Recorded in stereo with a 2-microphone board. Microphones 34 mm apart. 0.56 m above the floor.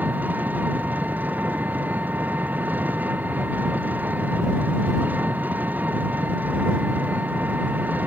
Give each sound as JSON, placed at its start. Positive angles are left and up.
{"t": 0.0, "sound": "an engine running", "side_deg": -60}